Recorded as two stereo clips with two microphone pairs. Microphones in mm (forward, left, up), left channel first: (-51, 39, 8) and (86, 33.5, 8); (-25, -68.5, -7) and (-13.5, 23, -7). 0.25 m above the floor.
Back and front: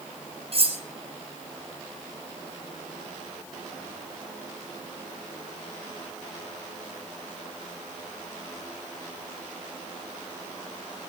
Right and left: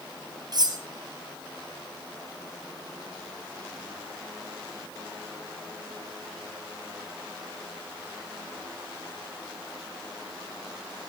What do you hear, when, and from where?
0.5 s cutlery clinking: 40° left, 2.5 m